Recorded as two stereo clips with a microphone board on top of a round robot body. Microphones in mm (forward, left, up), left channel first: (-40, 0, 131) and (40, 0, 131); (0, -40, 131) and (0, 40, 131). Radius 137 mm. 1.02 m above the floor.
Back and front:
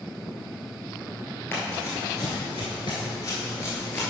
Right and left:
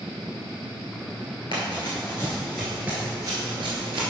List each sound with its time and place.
1.5 s running footsteps: 115° right, 1.2 m; by 4.1 s 110° left, 1.4 m